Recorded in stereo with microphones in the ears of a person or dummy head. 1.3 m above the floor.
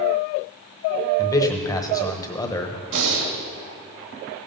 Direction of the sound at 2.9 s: 60° right (ahead or behind).